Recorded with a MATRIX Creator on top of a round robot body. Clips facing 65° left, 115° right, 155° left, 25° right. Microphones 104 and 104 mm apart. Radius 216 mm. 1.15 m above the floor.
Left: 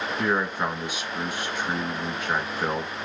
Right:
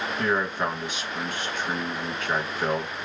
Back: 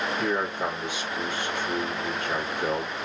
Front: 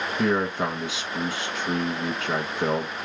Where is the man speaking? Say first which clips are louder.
Even, front 7 dB; 20° right, 1.8 m.